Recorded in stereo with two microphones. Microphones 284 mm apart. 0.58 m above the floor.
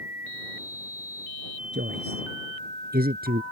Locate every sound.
1.7 s a man speaking: 35° right (ahead or behind); by 3.4 s 30° right (ahead or behind)